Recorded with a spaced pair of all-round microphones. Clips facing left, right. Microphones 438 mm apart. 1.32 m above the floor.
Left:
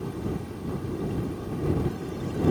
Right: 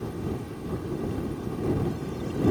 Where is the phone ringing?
No phone ringing in this recording.